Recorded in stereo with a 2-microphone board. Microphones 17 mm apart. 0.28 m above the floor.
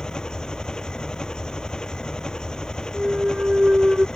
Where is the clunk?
70° right (ahead or behind).